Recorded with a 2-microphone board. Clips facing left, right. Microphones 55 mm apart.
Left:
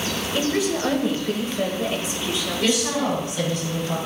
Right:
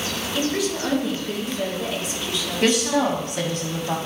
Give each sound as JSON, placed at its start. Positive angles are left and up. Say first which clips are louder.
{"t": 0.3, "sound": "a woman speaking", "louder": "left 2 dB", "side_deg": 25, "distance_m": 1.4}
{"t": 2.6, "sound": "a woman speaking", "louder": "right 3 dB", "side_deg": -55, "distance_m": 1.8}